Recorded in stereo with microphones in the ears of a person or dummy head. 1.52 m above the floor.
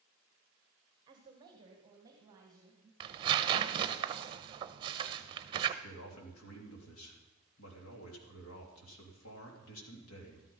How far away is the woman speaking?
About 1.2 m.